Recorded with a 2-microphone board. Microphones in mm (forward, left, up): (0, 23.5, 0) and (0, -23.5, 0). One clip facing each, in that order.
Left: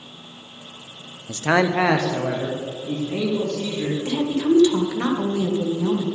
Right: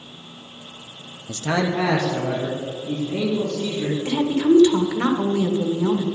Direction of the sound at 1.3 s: 15° left (ahead or behind).